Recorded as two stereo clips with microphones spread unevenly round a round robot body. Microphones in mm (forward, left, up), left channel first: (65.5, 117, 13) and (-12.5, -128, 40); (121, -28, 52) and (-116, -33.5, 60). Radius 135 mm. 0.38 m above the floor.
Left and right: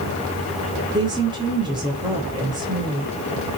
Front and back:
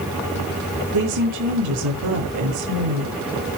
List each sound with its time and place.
0.9 s a woman speaking: 175° left, 7.5 m